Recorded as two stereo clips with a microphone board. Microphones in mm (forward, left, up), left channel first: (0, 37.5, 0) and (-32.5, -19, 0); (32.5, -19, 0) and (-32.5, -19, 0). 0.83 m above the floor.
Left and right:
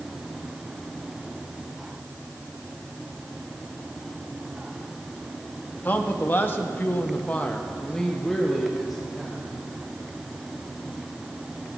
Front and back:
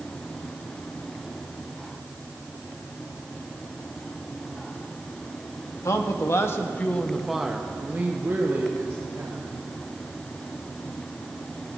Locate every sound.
5.8 s a man speaking: 5° left, 1.5 m; by 9.5 s 155° left, 2.5 m